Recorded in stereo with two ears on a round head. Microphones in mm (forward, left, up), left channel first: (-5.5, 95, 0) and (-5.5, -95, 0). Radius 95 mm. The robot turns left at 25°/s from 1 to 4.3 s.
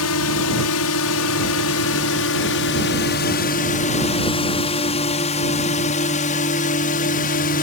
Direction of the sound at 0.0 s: 75° left (ahead or behind).